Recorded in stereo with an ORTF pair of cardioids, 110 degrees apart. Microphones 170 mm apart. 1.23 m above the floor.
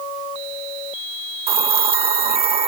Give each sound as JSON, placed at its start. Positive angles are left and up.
{"t": 1.5, "sound": "a hiss", "azimuth_deg": -35}